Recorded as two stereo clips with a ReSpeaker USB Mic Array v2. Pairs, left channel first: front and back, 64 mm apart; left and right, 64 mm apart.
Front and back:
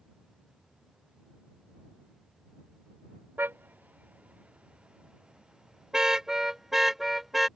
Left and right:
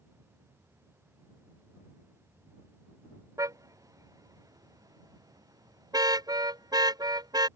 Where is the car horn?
120° right; by 7.5 s 95° right.